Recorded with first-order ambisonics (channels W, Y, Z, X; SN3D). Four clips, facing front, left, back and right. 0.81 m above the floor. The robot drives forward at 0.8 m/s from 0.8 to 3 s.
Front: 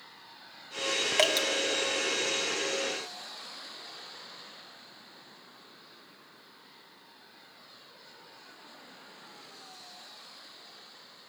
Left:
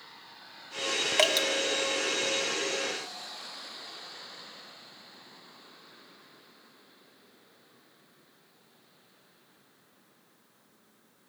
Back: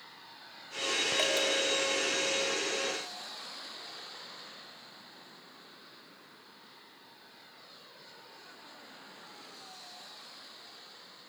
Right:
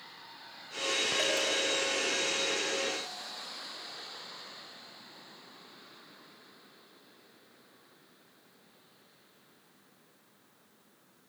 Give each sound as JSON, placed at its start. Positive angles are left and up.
{"t": 1.2, "sound": "dripping", "azimuth_deg": 50, "distance_m": 1.6}